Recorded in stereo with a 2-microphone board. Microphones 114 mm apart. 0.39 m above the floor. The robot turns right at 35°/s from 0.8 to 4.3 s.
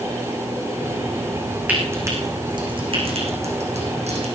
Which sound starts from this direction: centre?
Frying, at 1.7 s.